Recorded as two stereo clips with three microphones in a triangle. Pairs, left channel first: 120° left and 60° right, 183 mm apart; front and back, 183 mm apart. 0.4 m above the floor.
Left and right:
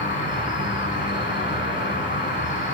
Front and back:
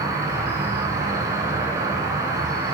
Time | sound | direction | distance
0.0 | an insect | 110° left | 0.8 m